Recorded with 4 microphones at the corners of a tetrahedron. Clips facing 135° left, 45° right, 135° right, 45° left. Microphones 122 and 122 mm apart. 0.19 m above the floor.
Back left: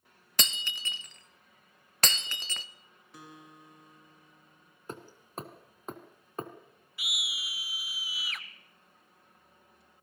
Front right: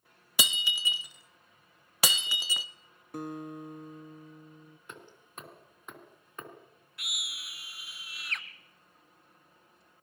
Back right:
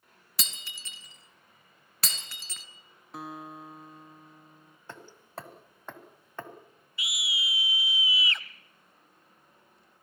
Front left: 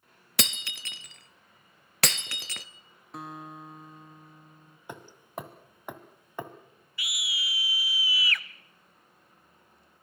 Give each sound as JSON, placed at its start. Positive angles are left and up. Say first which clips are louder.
{"t": 0.4, "sound": "breaking glass", "louder": "front right 3 dB, front left 10 dB", "azimuth_deg": 35, "distance_m": 0.7}
{"t": 3.1, "sound": "a guitar", "louder": "front right 13 dB, even", "azimuth_deg": -45, "distance_m": 1.2}
{"t": 4.9, "sound": "hammering", "louder": "back left 8 dB, front left 3 dB", "azimuth_deg": 115, "distance_m": 1.7}
{"t": 7.0, "sound": "a scream", "louder": "back left 4 dB, back right 2 dB", "azimuth_deg": -145, "distance_m": 1.0}